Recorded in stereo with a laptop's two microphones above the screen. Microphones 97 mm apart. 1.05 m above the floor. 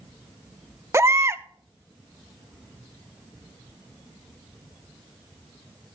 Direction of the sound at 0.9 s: 30° right (ahead or behind).